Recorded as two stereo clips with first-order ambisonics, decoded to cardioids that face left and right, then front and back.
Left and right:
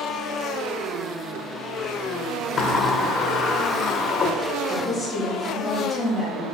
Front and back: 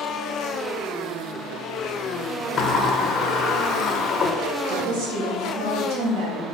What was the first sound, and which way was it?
A sliding door, 50° left.